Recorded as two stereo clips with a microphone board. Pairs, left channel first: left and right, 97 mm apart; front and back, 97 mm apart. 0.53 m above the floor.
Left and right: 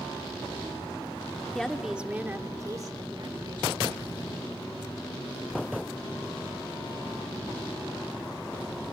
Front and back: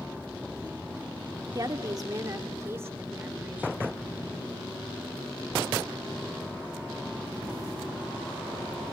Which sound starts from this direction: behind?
A woman speaking, at 1.6 s.